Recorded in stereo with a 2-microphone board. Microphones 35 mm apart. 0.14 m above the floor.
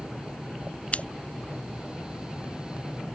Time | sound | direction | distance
0.9 | scissors | 40° left (ahead or behind) | ?